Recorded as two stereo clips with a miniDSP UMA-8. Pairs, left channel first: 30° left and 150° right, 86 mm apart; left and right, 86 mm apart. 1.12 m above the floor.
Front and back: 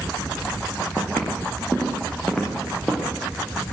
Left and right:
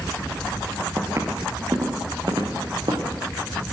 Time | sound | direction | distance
1.0 | footsteps | 35° right | 5 m